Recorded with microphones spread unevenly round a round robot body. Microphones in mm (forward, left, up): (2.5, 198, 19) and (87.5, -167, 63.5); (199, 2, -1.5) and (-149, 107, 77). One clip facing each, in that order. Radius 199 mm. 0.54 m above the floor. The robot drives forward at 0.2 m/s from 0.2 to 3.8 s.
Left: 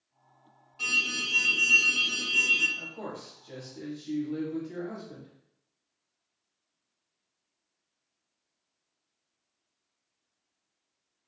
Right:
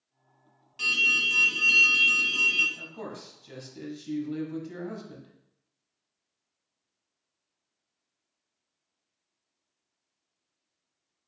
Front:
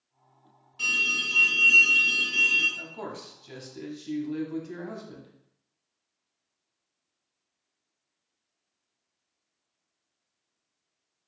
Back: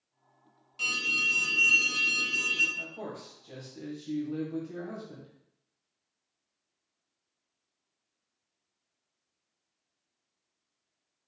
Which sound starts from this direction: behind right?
An alarm, at 0.8 s.